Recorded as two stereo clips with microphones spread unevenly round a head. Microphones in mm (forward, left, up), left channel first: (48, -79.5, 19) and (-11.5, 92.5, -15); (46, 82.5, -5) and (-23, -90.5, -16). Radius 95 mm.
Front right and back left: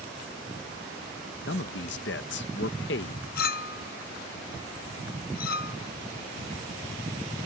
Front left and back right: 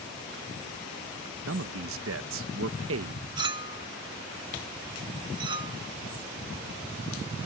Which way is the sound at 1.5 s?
105° right.